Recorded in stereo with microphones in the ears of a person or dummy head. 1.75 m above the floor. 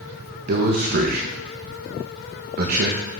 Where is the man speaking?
55° right (ahead or behind), 1.6 m.